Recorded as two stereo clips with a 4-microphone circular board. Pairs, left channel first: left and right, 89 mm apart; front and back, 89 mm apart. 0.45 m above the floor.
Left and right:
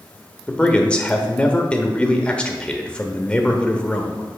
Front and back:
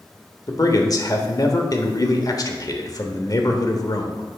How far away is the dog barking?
I don't hear a dog barking.